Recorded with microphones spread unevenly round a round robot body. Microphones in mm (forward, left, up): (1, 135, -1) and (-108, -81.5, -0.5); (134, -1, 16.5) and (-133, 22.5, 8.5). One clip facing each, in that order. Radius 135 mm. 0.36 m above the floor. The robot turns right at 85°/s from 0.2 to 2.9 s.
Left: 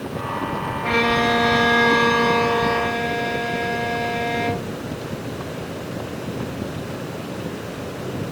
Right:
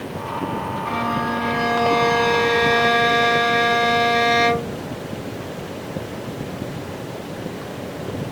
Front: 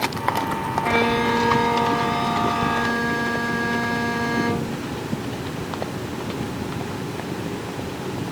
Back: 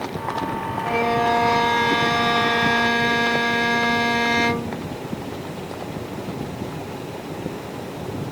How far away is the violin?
About 0.9 m.